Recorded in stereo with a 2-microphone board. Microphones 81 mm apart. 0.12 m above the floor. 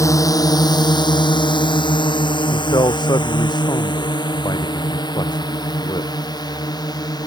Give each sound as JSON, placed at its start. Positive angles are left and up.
{"t": 0.0, "sound": "a drone", "side_deg": 40}
{"t": 2.5, "sound": "a man speaking", "side_deg": 65}